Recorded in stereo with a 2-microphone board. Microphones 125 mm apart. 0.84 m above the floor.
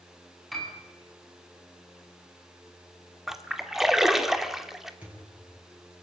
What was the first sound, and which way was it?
A piano, centre (ahead or behind).